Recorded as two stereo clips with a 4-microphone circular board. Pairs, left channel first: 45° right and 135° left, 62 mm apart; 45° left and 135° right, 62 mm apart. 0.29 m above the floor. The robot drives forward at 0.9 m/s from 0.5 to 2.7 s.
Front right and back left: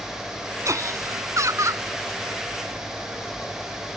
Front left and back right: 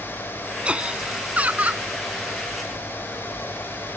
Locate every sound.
0.7 s laughter: 155° left; by 1.9 s 160° left